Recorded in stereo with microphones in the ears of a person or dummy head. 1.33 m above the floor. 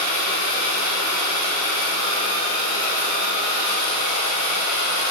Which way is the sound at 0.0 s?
55° left (ahead or behind).